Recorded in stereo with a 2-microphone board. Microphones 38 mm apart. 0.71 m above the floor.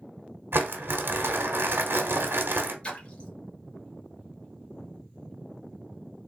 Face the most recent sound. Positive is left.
turn(degrees=30)  # may be behind; listen again after turning